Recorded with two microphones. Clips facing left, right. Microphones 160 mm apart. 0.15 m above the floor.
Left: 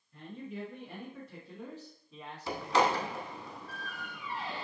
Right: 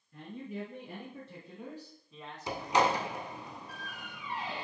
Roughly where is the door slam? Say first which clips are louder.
Even; centre.